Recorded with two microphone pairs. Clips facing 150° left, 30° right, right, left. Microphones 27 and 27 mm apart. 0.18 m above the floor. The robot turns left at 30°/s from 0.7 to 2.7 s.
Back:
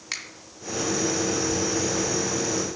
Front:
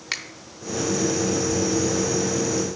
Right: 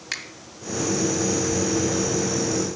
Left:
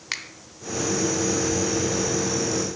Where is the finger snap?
30° left, 0.9 m.